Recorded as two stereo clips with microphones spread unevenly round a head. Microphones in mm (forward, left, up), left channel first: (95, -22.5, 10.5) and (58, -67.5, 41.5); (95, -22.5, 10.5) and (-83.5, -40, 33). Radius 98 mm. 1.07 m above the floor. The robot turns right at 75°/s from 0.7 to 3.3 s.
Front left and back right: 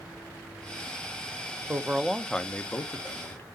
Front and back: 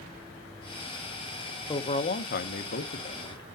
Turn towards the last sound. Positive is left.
turn(degrees=65)